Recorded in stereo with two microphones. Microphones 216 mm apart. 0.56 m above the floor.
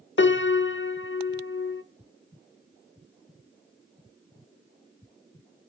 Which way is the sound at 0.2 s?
60° left (ahead or behind).